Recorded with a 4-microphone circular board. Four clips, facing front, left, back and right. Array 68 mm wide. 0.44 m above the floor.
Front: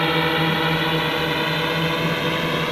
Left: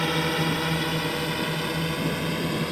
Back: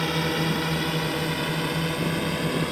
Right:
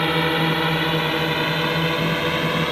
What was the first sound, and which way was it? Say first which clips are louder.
A drone: right 5 dB, front 6 dB; 35° right.